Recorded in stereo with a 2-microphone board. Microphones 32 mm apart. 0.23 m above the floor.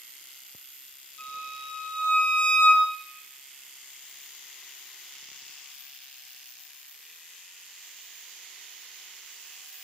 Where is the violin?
50° left (ahead or behind), 6.5 m.